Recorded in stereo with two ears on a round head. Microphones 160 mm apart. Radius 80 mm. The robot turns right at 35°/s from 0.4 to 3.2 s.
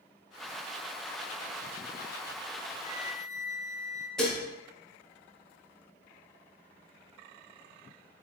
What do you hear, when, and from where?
2.8 s a flute: 10° right (ahead or behind), 1.0 m; by 4.1 s 5° left (ahead or behind), 1.0 m
4.2 s dishes clattering: 5° left (ahead or behind), 0.5 m